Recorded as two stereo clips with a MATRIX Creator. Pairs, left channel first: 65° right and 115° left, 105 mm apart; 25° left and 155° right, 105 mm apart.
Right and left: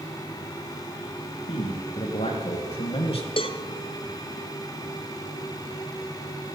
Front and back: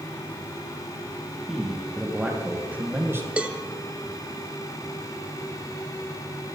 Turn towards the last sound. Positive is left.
turn(degrees=-80)